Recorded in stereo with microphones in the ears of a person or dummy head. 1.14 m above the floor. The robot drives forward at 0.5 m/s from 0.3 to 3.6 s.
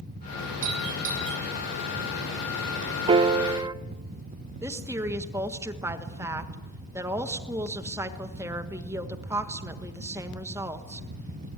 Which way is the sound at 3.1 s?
35° right (ahead or behind).